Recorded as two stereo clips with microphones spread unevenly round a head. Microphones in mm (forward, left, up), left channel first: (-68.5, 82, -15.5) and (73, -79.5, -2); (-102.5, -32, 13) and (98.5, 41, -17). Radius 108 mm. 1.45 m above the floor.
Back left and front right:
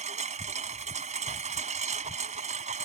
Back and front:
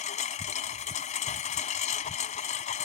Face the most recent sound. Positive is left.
turn(degrees=-105)